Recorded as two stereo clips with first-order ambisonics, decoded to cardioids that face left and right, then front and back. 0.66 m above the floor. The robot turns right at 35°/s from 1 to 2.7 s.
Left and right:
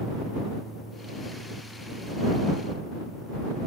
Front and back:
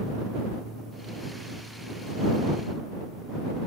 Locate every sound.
Only background noise.